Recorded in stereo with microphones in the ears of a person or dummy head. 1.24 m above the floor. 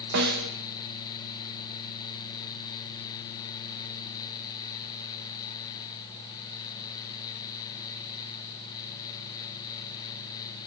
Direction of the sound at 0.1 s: 60° right (ahead or behind).